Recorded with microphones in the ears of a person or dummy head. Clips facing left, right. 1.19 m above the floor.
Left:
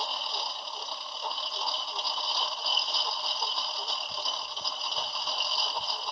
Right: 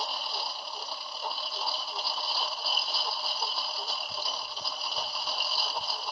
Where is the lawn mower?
5° right (ahead or behind).